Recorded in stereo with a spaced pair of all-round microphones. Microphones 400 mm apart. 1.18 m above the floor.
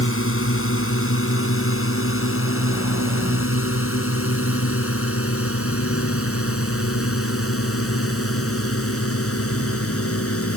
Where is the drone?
30° left (ahead or behind).